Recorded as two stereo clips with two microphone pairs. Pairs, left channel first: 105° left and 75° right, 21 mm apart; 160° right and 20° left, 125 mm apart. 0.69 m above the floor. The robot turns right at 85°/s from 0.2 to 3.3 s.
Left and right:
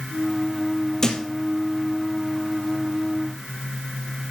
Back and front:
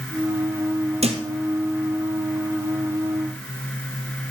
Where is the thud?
50° left, 1.9 m; by 1.2 s 65° left, 1.9 m.